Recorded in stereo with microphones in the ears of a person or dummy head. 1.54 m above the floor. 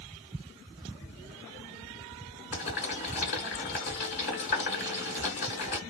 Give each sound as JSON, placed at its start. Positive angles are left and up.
{"t": 2.5, "sound": "boiling", "side_deg": 40, "distance_m": 1.5}